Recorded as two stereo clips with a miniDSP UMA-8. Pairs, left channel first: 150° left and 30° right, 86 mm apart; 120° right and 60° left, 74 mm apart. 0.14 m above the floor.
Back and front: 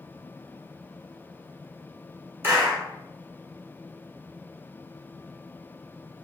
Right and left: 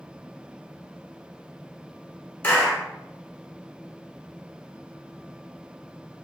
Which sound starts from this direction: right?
A clap, at 2.4 s.